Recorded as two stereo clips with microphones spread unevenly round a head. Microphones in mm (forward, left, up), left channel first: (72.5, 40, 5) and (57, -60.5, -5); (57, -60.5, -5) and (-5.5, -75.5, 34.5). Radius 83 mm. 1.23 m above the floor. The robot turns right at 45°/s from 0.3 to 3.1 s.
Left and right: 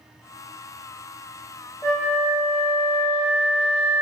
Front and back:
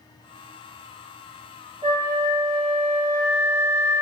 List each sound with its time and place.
1.8 s a flute: 155° left, 1.0 m; by 4.0 s 150° right, 1.0 m